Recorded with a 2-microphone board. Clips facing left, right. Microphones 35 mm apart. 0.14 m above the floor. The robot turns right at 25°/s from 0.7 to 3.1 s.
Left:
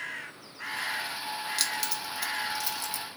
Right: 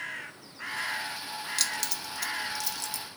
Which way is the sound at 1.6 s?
5° left (ahead or behind).